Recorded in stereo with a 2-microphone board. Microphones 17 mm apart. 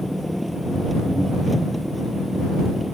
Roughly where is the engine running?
Centre.